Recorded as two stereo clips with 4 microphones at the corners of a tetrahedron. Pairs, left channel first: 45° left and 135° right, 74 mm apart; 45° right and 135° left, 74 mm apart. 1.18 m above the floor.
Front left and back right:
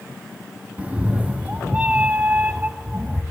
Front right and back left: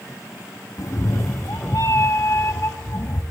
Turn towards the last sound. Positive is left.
turn(degrees=-70)